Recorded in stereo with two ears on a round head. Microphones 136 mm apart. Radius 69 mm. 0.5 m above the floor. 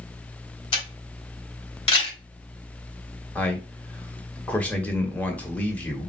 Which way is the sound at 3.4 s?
10° left (ahead or behind).